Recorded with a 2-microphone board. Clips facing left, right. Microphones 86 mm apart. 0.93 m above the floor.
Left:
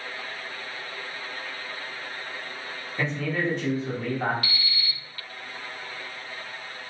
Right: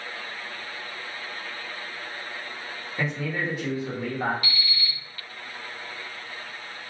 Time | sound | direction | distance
3.0 | a man speaking | 5° right (ahead or behind) | 1.0 m
4.4 | an alarm clock | 60° left (ahead or behind) | 0.8 m